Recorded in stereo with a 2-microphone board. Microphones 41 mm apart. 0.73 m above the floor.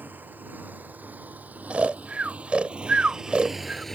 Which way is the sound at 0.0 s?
55° right (ahead or behind).